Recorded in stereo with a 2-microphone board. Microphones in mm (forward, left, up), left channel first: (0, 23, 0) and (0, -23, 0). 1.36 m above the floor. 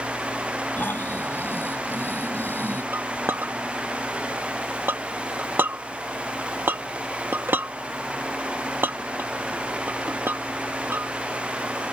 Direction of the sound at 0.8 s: 55° left (ahead or behind).